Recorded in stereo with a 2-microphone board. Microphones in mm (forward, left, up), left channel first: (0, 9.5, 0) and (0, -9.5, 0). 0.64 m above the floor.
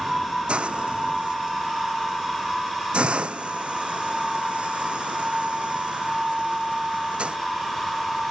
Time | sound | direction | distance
0.5 | a hiss | 80° right | ?